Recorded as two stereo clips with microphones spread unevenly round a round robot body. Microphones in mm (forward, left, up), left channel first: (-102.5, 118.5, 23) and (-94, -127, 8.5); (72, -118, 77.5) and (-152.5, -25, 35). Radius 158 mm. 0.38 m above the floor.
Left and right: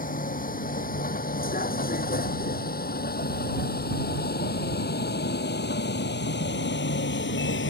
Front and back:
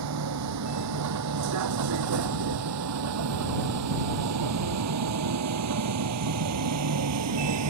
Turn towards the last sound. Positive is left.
turn(degrees=135)